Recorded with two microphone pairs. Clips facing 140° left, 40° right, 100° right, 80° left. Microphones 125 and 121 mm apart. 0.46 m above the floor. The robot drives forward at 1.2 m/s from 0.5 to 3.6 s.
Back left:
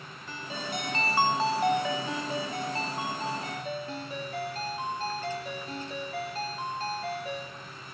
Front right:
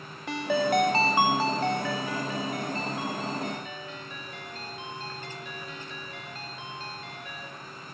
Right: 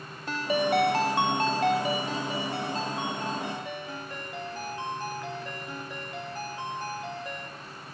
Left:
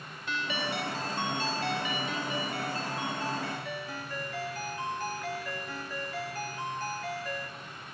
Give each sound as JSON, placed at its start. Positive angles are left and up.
{"t": 0.3, "sound": "a ringtone", "azimuth_deg": -50, "distance_m": 0.9}